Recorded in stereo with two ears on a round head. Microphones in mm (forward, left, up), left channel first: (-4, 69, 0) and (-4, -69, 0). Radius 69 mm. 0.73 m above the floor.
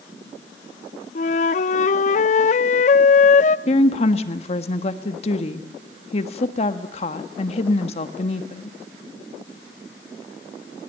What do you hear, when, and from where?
1.1 s a flute: 45° left (ahead or behind), 0.5 m
3.7 s a woman speaking: 40° left (ahead or behind), 1.4 m